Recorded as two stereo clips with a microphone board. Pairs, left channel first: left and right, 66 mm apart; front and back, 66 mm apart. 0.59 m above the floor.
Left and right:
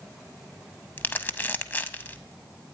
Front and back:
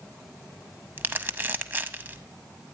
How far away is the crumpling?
About 0.5 m.